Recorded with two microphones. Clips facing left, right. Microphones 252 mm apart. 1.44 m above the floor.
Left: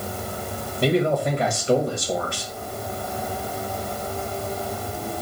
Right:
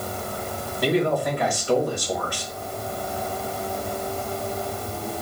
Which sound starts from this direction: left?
A man speaking, at 0.8 s.